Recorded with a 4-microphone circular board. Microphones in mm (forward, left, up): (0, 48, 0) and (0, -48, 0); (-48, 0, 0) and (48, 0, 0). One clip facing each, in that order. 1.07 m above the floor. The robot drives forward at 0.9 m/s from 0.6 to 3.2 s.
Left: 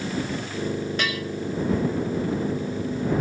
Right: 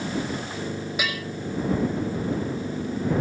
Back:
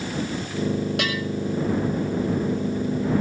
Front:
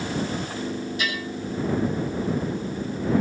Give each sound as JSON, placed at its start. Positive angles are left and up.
{"t": 1.0, "sound": "a bell", "azimuth_deg": -170, "distance_m": 6.0}